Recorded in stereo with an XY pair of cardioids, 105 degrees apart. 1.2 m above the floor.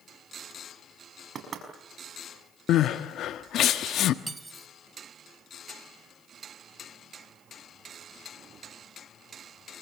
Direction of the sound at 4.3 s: 20° right.